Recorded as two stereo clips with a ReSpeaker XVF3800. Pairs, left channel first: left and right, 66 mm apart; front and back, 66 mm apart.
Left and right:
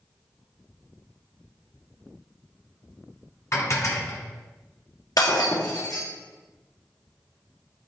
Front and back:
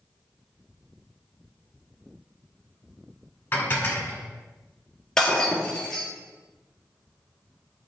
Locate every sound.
3.5 s dishes clattering: 55° left, 1.4 m
5.2 s breaking glass: 80° left, 2 m